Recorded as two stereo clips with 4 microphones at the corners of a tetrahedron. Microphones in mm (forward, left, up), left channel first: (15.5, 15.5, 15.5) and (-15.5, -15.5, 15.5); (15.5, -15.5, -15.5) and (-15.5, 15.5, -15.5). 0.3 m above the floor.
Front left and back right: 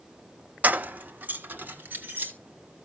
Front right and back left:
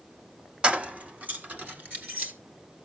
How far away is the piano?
No piano in this recording.